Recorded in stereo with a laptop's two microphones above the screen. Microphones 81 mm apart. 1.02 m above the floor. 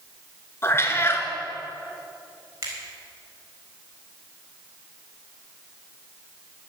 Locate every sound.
0.6 s a cat meowing: 30° left (ahead or behind), 1.8 m
2.6 s a finger snap: 35° right (ahead or behind), 4.5 m